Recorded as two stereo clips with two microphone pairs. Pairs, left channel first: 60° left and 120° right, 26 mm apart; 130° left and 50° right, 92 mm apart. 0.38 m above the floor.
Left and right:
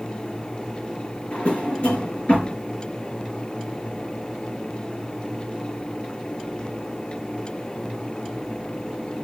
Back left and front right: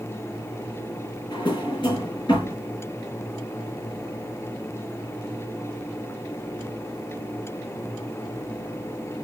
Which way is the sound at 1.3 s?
95° left.